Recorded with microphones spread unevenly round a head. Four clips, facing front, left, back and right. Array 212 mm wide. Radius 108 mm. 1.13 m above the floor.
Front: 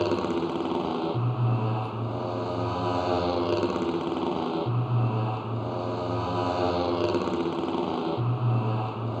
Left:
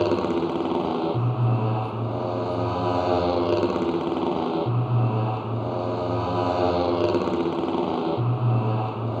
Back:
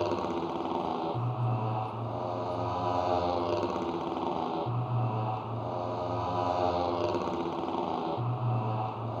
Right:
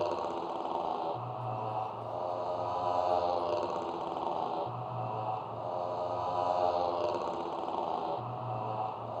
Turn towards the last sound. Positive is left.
turn(degrees=65)